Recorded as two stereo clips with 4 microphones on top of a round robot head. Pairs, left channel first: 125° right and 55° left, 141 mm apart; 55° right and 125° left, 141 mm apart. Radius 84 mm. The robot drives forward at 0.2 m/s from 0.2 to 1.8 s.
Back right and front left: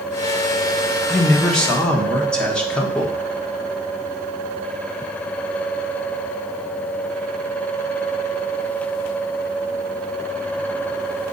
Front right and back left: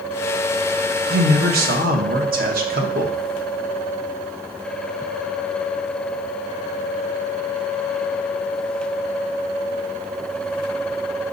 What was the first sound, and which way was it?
A man speaking, 150° left.